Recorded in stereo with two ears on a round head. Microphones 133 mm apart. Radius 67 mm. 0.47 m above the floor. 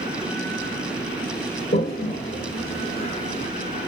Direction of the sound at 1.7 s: 45° left (ahead or behind).